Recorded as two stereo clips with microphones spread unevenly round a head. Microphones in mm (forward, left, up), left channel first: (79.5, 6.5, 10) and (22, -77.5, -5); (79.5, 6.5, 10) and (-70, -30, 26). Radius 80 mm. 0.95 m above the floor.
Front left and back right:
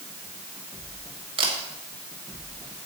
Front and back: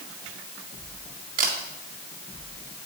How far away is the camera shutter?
About 2 m.